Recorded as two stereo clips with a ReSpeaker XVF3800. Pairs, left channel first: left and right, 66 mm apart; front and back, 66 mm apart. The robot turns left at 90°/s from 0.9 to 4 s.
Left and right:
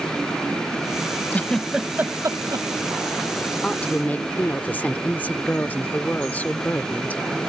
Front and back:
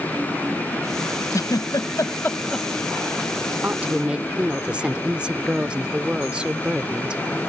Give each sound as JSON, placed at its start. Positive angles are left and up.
{"t": 1.3, "sound": "a giggle", "azimuth_deg": 30}
{"t": 3.6, "sound": "a woman speaking", "azimuth_deg": 155}